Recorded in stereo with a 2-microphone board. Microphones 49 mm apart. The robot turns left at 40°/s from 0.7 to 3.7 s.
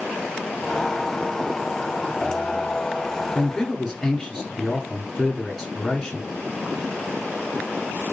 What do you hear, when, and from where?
3.4 s a man speaking: 10° left (ahead or behind), 1.9 m; by 6.3 s centre (ahead or behind), 1.9 m